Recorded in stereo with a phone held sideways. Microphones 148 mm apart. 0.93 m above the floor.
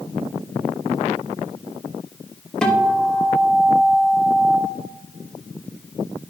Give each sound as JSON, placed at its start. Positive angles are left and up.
{"t": 2.6, "sound": "a guitar", "side_deg": 5, "distance_m": 1.3}